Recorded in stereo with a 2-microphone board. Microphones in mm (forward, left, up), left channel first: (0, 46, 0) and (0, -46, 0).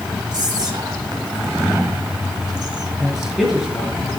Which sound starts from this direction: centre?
A man speaking, at 3.0 s.